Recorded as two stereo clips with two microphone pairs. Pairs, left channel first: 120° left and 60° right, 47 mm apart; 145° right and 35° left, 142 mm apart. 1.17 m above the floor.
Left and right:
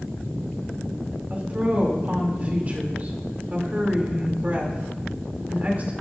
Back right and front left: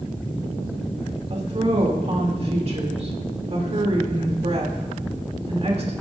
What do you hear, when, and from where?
1.3 s a woman speaking: 5° right, 3 m